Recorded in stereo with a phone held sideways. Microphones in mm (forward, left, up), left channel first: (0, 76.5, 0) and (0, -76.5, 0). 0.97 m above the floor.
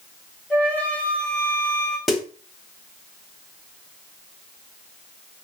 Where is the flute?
10° left (ahead or behind), 1.1 m.